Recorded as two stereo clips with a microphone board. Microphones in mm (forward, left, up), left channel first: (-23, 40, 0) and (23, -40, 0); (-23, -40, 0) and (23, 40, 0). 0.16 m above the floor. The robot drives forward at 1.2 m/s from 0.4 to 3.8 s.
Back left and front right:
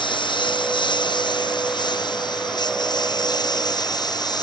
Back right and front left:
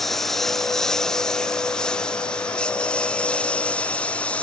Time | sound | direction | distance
0.0 | a lawn mower | 155° left | ?